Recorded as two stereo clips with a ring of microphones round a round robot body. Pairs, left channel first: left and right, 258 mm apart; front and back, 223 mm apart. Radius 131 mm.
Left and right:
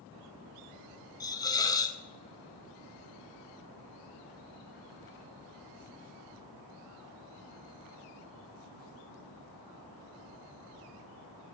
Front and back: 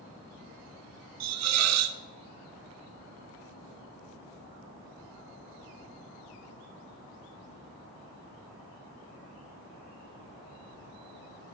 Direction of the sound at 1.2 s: 165° left.